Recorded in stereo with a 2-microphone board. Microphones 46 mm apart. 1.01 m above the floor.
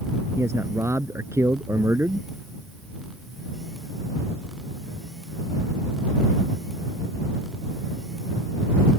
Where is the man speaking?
85° right.